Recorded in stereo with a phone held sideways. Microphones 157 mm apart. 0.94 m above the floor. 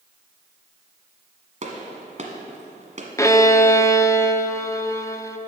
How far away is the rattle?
I don't hear a rattle.